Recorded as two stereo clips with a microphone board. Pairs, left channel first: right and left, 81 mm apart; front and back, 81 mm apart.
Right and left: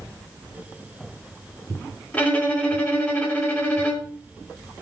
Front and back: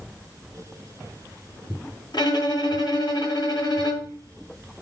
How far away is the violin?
About 3.5 m.